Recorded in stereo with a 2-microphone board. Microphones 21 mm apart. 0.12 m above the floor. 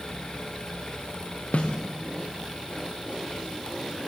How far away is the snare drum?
About 3.5 m.